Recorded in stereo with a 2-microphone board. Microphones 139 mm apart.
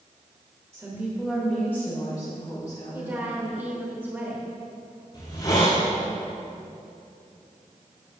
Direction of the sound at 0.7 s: 25° right (ahead or behind).